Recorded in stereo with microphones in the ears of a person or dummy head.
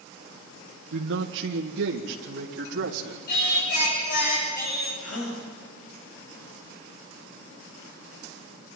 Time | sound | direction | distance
0.9 | a man speaking | 75° right (ahead or behind) | 1.2 m
3.3 | singing | 55° left (ahead or behind) | 8 m
5.0 | a gasp | 85° left | 7.5 m